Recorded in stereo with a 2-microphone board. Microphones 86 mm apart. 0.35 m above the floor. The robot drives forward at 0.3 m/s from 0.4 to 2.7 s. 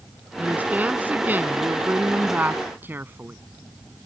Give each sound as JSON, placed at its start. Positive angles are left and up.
{"t": 0.4, "sound": "a woman speaking", "side_deg": -20}